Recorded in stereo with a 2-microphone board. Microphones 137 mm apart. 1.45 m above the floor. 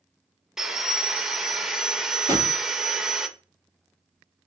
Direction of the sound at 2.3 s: 25° right (ahead or behind).